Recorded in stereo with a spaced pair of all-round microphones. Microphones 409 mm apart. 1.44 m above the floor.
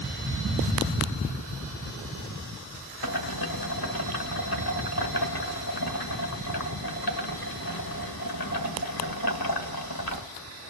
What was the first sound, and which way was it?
Boiling, 60° left (ahead or behind).